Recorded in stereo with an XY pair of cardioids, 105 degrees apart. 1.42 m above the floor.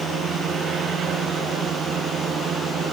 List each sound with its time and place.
0.0 s a drone: 70° right; by 2.9 s 60° right